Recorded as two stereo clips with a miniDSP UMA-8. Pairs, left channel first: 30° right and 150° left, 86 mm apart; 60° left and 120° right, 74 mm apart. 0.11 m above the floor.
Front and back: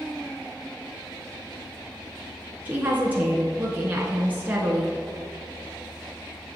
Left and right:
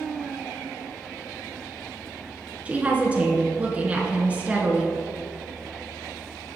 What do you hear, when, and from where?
2.6 s a woman speaking: 170° right, 1.2 m